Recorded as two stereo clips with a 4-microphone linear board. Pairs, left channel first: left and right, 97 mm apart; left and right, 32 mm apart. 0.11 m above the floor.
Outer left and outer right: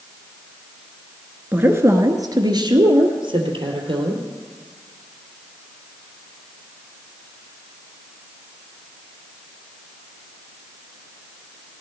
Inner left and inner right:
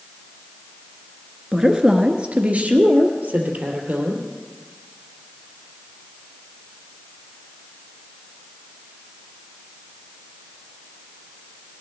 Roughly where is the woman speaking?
Centre.